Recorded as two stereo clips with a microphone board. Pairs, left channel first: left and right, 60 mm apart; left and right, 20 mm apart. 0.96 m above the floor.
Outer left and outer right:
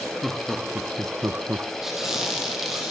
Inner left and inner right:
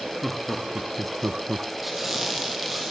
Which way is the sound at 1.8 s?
10° right (ahead or behind).